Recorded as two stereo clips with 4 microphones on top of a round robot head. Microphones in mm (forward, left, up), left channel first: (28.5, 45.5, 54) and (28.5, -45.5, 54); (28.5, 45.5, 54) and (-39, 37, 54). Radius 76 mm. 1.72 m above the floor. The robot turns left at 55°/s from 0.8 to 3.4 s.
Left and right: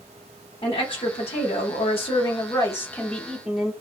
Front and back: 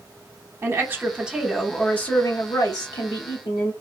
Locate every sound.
0.6 s a woman speaking: 140° left, 0.8 m; by 3.7 s 5° right, 0.8 m